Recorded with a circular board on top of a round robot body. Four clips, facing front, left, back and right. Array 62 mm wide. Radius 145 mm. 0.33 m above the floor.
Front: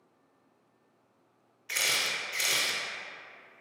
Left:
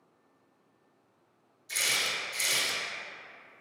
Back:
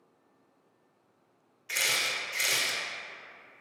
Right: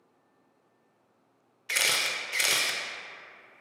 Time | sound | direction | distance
1.7 | a camera shutter | 85° right | 0.5 m